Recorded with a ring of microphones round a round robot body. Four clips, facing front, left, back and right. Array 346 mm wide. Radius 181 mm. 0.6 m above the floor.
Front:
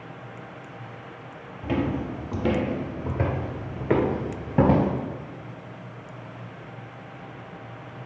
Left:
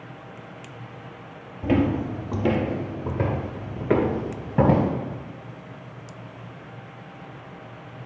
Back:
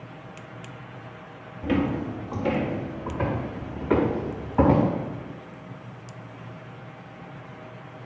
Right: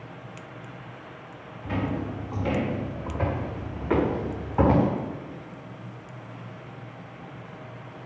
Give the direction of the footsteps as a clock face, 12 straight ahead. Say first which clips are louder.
Left 8 dB, back 2 dB; 8 o'clock.